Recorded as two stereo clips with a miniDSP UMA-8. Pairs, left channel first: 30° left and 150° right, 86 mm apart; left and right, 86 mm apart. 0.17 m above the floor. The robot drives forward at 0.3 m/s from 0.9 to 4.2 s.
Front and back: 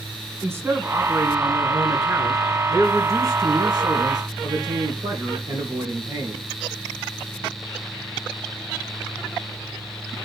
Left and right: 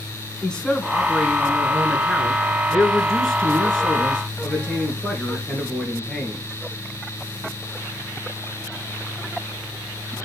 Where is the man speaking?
165° left, 1.3 m; by 6.4 s 175° left, 2 m.